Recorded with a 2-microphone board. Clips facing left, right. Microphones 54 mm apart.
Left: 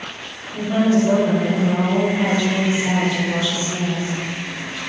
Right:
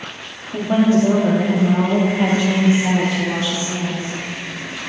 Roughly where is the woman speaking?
Right.